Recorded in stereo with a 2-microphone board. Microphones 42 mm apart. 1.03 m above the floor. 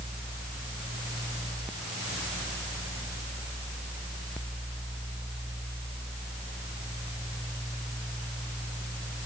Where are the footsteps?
No footsteps in this recording.